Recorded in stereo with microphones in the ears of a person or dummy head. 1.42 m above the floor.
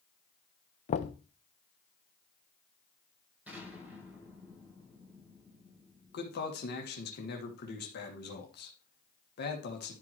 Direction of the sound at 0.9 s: 30° left (ahead or behind).